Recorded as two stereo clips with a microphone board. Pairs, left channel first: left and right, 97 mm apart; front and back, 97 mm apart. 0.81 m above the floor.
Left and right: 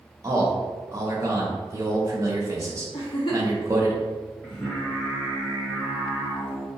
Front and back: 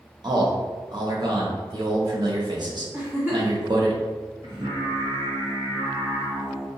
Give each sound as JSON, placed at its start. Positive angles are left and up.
{"t": 0.2, "sound": "a man speaking", "azimuth_deg": -145, "distance_m": 0.9}
{"t": 2.9, "sound": "a giggle", "azimuth_deg": 110, "distance_m": 1.2}
{"t": 4.4, "sound": "singing", "azimuth_deg": 165, "distance_m": 1.9}